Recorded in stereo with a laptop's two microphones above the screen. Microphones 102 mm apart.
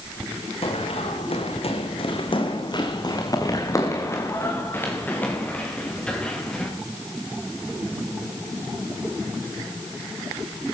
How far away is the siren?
I don't hear a siren.